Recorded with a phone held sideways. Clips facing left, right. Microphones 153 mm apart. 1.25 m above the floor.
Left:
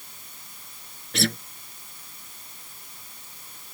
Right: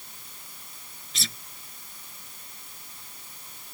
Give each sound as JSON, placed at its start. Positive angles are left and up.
{"t": 1.1, "sound": "a guitar", "side_deg": 65}